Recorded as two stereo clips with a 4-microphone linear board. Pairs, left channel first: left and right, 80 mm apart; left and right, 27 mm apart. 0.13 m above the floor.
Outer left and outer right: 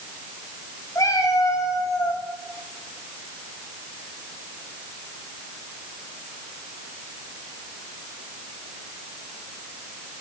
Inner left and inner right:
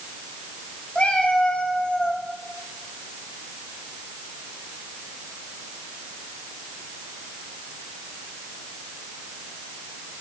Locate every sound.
0.9 s a cat meowing: 40° left (ahead or behind), 8.5 m; by 2.2 s 35° left (ahead or behind), 8.5 m